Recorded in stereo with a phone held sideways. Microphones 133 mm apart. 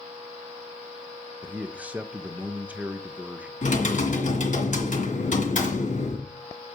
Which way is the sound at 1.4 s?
10° right (ahead or behind).